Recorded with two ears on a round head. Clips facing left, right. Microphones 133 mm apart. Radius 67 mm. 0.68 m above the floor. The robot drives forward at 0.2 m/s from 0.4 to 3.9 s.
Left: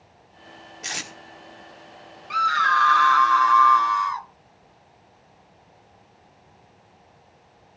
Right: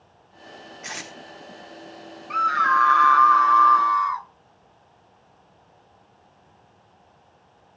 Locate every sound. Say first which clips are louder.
0.8 s tape being pulled: left 2 dB; 40° left (ahead or behind), 1.9 m; by 1.1 s 35° left (ahead or behind), 1.9 m
2.3 s a scream: right 1 dB; 40° left (ahead or behind), 0.6 m; by 4.3 s 30° left (ahead or behind), 0.7 m